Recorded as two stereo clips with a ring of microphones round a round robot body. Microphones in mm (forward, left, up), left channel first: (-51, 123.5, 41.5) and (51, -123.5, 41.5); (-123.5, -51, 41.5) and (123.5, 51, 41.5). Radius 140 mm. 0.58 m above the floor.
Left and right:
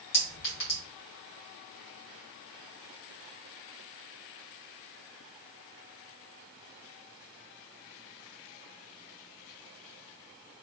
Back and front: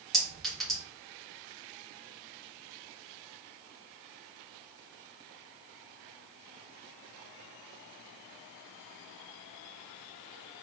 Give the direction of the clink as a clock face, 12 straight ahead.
8 o'clock.